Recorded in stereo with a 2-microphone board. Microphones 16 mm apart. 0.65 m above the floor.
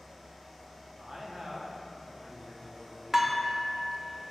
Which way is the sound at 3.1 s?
20° right (ahead or behind).